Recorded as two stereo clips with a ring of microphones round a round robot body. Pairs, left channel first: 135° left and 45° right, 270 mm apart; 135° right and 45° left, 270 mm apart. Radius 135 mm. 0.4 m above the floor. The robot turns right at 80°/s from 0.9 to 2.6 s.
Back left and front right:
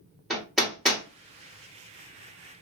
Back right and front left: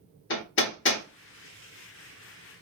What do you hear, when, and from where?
0.3 s hammering: 135° right, 1.4 m; by 1.0 s 125° right, 1.4 m